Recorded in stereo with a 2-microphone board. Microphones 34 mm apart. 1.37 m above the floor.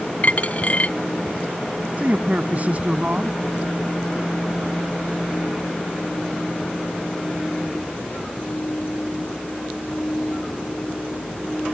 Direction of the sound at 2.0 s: 40° right (ahead or behind).